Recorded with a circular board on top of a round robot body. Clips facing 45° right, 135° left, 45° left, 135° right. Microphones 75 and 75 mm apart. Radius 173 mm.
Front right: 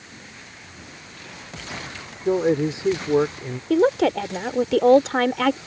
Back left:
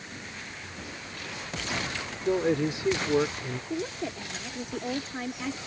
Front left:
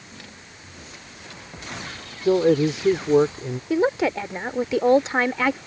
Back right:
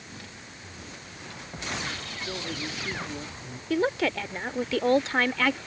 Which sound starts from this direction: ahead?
A man speaking, at 2.2 s.